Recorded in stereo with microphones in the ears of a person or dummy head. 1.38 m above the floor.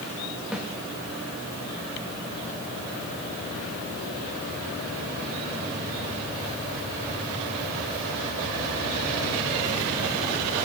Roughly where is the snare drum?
Centre.